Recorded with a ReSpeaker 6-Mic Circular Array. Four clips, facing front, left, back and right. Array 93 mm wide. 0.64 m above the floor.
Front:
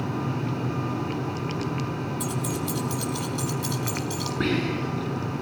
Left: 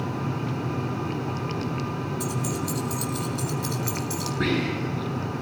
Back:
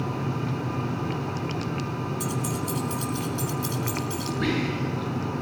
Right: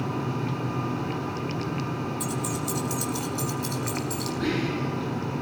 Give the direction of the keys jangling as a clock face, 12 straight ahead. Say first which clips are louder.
Left 1 dB, even; 1 o'clock.